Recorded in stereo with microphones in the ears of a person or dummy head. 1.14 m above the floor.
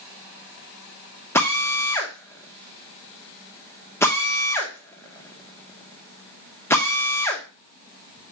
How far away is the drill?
About 1.7 m.